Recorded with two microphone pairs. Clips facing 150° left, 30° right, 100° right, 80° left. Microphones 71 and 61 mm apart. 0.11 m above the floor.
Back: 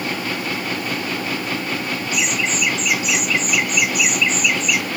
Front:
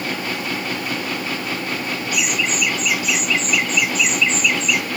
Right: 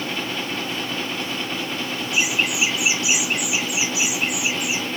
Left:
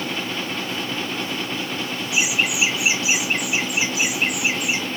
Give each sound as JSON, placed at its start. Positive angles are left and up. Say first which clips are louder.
{"t": 2.1, "sound": "laughter", "louder": "even, even", "azimuth_deg": 150, "distance_m": 1.3}